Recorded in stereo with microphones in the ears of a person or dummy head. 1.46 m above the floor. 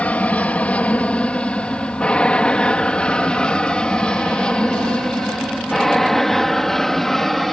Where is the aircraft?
5° left (ahead or behind); by 7.5 s centre (ahead or behind).